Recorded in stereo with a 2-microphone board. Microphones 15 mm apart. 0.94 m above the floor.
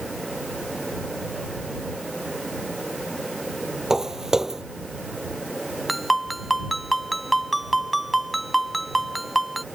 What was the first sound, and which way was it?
Footsteps, 40° right (ahead or behind).